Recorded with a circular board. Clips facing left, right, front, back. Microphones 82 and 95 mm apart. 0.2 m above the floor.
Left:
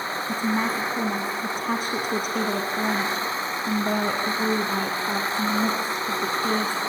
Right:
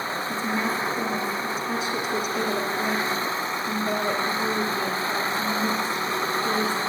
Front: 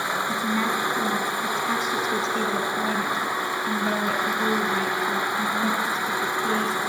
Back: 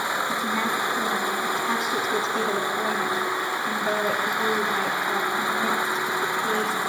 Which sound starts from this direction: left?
A woman speaking, at 0.3 s.